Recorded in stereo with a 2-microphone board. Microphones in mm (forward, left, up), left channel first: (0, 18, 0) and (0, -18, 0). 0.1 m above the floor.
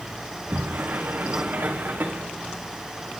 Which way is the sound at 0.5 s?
60° right (ahead or behind).